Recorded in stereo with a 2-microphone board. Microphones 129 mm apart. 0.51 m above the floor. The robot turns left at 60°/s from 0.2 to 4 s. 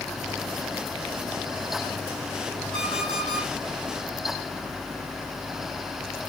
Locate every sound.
2.7 s an alarm clock: 140° left, 9 m; by 3.5 s 95° left, 9 m